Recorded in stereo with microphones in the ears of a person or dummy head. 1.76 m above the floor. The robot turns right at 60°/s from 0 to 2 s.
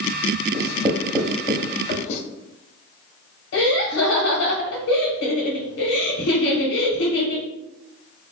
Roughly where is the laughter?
Left.